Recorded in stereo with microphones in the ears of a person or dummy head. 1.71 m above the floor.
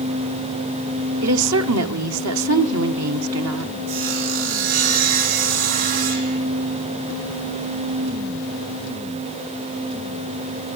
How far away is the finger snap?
No finger snap in this recording.